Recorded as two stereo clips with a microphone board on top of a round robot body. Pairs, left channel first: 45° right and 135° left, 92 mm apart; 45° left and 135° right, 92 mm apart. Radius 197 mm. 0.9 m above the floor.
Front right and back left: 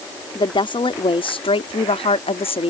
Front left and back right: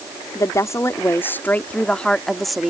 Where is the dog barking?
I don't hear a dog barking.